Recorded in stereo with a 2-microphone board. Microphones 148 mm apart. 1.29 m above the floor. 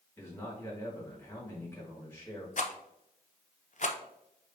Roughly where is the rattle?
Left.